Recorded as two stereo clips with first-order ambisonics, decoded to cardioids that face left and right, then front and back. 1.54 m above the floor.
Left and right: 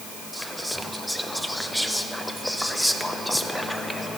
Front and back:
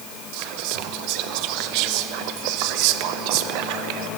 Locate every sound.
0.3 s whispering: straight behind, 0.6 m